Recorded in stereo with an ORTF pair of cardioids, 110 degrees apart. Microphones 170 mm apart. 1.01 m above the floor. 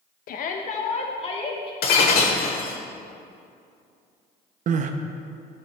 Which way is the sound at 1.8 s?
65° left.